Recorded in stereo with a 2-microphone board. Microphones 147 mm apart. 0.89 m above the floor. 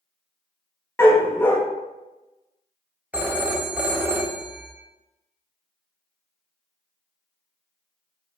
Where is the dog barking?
15° left (ahead or behind), 0.7 m.